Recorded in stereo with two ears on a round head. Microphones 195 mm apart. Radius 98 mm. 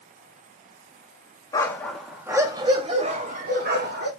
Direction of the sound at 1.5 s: 15° left (ahead or behind).